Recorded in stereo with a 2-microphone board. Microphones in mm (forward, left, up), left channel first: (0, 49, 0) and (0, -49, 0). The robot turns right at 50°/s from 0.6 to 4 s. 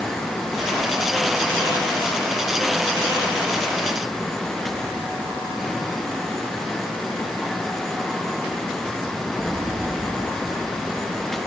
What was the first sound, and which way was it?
Only background noise.